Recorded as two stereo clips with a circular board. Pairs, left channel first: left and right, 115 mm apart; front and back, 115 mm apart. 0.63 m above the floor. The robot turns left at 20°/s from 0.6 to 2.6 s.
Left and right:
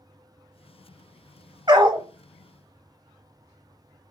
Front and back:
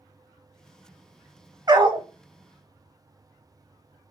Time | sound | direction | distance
1.7 | a dog barking | 135° right | 0.7 m